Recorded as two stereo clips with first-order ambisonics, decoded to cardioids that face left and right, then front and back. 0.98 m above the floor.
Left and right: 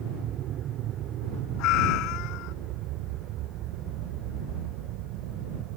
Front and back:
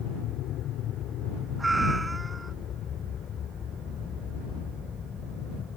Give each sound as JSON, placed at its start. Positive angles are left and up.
{"t": 0.0, "sound": "an aircraft", "azimuth_deg": -40}
{"t": 1.6, "sound": "a cat meowing", "azimuth_deg": 100}